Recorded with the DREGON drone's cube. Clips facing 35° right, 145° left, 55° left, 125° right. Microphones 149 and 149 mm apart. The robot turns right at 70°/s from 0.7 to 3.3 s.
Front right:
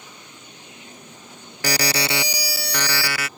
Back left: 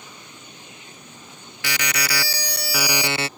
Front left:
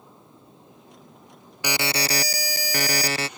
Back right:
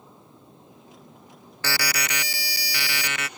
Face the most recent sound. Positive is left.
turn(degrees=105)